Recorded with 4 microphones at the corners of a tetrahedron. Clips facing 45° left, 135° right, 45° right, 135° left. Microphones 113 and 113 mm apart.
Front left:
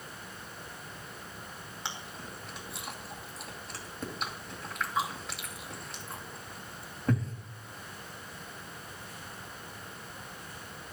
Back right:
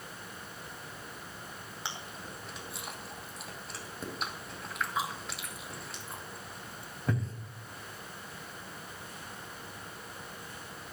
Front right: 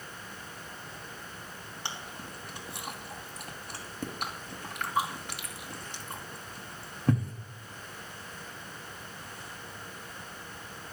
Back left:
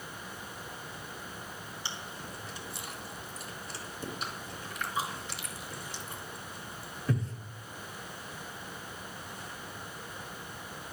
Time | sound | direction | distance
1.9 | chewing | 45° right | 2.5 m